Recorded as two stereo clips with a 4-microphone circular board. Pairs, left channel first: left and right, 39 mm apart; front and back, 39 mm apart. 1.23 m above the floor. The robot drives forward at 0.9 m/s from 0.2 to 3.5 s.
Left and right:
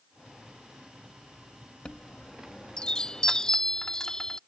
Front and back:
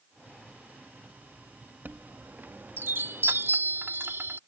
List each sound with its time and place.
1.9 s a chime: 150° left; by 4.4 s 165° left